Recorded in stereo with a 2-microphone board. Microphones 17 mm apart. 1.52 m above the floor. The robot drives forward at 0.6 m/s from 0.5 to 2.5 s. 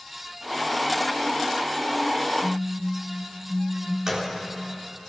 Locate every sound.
2.4 s a phone buzzing: 45° right (ahead or behind), 4 m
4.1 s a gunshot: 35° right (ahead or behind), 3.5 m